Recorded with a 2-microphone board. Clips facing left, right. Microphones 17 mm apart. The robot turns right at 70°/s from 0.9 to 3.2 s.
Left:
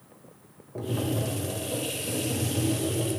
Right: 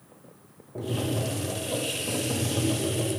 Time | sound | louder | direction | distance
0.8 | tapping | even | 165° left | 1.2 m